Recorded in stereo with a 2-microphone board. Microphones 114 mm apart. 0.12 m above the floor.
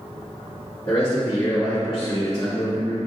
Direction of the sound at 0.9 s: 35° left (ahead or behind).